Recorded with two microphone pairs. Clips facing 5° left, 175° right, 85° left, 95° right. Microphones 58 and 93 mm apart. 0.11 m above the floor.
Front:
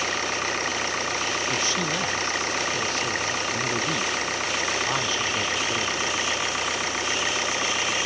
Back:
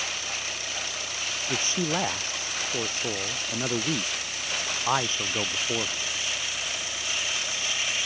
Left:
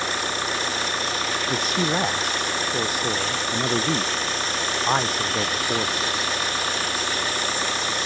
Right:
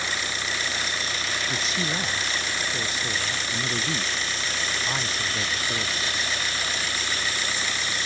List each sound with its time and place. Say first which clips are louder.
0.0 s an engine running: front 8 dB, left 4 dB; 45° left
1.5 s a man speaking: front 2 dB, left 8 dB; 120° left